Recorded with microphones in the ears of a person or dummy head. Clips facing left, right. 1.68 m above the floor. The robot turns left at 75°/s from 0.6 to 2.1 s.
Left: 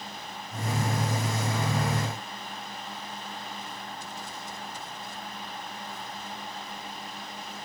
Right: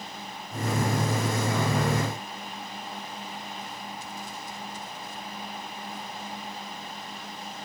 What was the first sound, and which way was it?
Only background noise.